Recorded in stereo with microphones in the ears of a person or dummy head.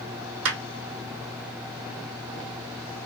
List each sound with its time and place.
0.5 s a clap: 70° right (ahead or behind), 2.5 m